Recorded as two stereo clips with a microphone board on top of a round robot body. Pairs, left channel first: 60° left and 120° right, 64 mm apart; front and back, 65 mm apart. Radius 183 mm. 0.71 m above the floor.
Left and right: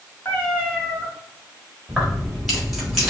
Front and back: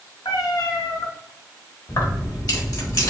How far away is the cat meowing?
About 0.9 m.